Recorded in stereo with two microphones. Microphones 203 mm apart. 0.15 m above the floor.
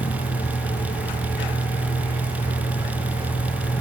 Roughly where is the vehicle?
Left.